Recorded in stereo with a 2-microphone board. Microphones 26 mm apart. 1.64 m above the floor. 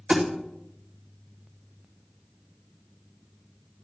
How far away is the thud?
About 1.8 m.